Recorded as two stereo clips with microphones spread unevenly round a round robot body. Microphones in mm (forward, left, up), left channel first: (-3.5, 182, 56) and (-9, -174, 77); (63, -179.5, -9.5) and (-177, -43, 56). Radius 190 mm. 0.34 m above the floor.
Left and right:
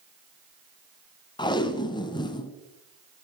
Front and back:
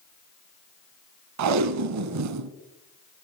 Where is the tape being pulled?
170° left, 0.8 m.